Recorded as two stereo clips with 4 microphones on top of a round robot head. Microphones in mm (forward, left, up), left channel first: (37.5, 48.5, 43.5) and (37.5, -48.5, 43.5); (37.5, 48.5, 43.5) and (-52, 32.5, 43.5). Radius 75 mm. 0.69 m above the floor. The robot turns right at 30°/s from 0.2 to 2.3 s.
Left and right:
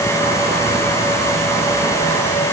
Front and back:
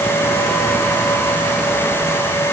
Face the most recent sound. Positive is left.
No sound to turn to.